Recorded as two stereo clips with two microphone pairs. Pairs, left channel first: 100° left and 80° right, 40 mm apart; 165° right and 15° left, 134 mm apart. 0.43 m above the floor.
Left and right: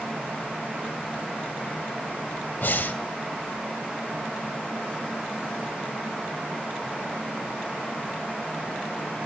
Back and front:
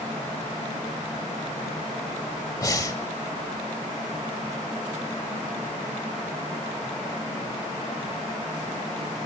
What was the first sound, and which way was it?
Breathing, 130° left.